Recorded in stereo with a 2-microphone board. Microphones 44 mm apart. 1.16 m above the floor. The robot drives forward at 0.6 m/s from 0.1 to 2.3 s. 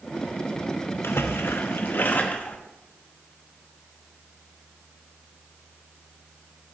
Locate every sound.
1.0 s a splash: 60° left (ahead or behind), 0.6 m; by 2.6 s 35° left (ahead or behind), 0.9 m